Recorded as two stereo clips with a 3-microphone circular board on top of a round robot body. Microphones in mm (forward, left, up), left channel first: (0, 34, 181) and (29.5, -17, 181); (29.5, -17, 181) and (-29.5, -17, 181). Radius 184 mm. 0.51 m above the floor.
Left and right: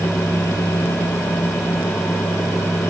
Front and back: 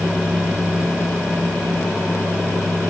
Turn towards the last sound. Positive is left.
No sound to turn to.